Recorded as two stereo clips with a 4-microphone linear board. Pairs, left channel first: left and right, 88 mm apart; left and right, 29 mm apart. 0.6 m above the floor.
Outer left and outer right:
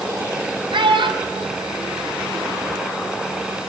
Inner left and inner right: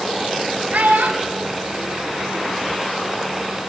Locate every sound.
0.7 s a child speaking: 70° right (ahead or behind), 3.5 m; by 2.7 s 75° right (ahead or behind), 5 m